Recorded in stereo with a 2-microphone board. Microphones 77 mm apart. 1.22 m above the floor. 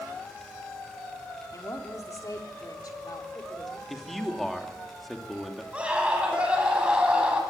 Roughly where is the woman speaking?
Left.